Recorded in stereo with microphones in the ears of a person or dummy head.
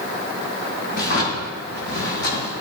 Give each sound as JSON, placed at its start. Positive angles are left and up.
{"t": 0.9, "sound": "a drawer", "side_deg": 60, "distance_m": 7.5}